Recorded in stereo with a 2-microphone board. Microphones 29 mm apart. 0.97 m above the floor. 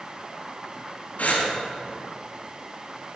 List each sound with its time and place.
1.2 s breathing: 60° left (ahead or behind), 2 m